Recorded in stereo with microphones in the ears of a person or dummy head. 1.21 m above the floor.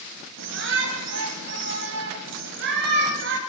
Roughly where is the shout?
Right.